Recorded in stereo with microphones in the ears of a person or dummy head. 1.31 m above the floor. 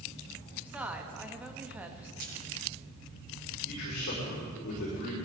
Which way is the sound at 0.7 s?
10° right (ahead or behind).